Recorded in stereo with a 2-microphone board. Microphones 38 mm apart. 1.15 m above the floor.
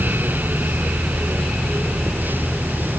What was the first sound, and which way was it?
Only background noise.